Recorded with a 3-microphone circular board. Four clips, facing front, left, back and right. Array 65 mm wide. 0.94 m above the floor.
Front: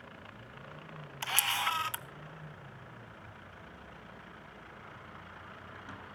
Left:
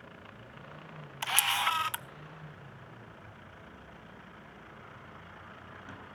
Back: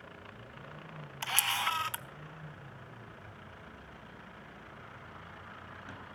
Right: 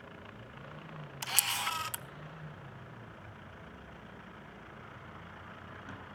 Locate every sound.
1.2 s a camera shutter: 90° left, 0.8 m